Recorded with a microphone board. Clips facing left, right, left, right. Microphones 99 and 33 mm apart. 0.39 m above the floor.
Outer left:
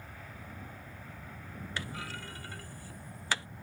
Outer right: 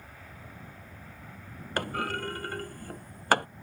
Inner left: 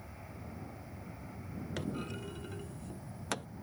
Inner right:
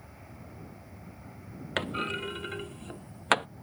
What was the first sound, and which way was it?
A clunk, 60° right (ahead or behind).